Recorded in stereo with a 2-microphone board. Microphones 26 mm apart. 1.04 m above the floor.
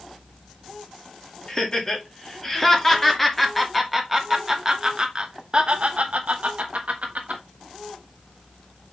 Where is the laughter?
25° left (ahead or behind), 2.5 m; by 7.4 s 70° right (ahead or behind), 1.7 m.